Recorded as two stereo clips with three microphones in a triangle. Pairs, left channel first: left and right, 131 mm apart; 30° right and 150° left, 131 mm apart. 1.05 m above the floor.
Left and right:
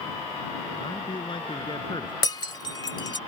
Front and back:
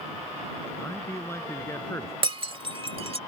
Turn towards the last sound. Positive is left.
turn(degrees=130)